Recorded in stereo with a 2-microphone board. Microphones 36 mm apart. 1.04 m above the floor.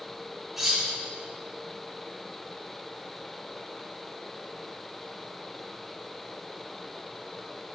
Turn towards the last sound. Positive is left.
turn(degrees=-5)  # may be behind; listen again after turning